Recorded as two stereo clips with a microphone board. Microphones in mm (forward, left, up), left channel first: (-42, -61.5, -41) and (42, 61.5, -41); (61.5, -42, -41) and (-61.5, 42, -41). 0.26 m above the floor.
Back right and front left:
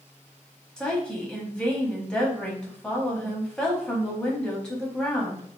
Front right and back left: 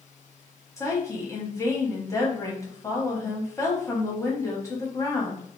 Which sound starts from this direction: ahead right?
A woman speaking, at 0.8 s.